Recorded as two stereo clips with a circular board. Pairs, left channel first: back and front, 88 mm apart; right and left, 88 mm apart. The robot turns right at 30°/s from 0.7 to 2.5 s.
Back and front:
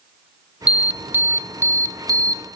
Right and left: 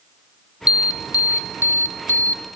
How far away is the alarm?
About 1.0 m.